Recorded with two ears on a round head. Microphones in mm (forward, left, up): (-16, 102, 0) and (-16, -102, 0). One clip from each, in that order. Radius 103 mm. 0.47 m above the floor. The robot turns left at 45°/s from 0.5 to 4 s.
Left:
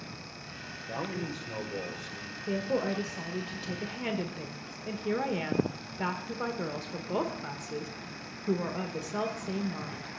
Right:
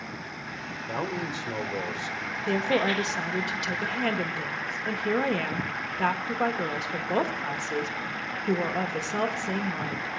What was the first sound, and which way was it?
A man speaking, 85° right.